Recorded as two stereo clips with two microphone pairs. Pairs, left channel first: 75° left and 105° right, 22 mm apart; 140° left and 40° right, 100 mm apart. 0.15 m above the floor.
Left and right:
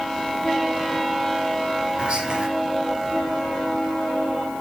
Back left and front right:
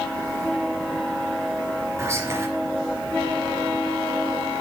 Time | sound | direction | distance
2.0 | whispering | 100° right | 2.5 m